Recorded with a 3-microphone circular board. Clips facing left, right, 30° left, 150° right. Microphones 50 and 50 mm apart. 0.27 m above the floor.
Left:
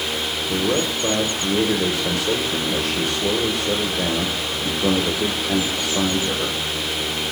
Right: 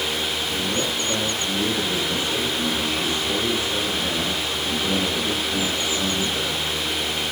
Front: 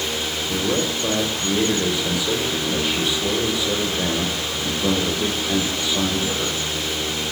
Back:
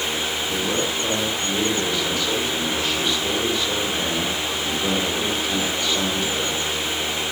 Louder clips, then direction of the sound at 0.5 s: Left 8 dB, front 3 dB; 110° left.